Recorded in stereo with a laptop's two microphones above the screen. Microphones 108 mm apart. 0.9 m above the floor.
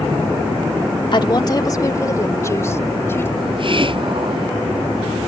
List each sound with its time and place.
1.1 s a woman speaking: 45° left (ahead or behind); by 3.3 s 25° left (ahead or behind)
3.4 s a hiss: 50° right (ahead or behind)